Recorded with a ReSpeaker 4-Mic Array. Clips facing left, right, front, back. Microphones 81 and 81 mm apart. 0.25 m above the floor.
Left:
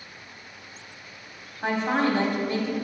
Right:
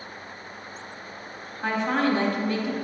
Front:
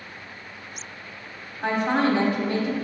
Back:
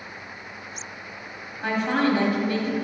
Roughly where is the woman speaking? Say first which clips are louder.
Even, front 1 dB; ahead left.